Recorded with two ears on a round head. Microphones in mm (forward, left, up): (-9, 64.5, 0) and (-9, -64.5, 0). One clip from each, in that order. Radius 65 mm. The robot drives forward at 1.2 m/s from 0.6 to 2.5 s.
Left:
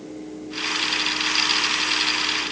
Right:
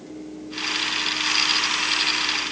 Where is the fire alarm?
No fire alarm in this recording.